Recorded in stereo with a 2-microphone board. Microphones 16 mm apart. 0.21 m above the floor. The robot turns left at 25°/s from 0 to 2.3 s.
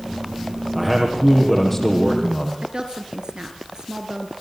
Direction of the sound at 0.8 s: 170° right.